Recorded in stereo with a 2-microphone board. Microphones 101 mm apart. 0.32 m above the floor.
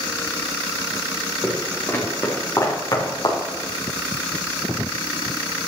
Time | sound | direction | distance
1.4 | footsteps | 15° left (ahead or behind) | 3.5 m